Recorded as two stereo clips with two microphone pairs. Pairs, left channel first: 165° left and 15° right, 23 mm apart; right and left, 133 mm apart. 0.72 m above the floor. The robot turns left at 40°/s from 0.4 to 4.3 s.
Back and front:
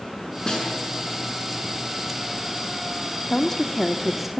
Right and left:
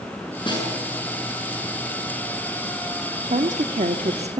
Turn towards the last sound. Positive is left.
turn(degrees=60)